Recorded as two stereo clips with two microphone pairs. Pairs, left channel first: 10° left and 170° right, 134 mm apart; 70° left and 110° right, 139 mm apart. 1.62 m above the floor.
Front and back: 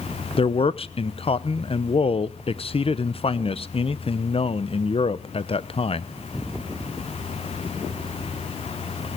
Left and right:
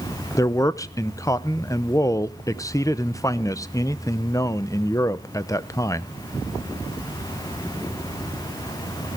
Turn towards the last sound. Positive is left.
turn(degrees=15)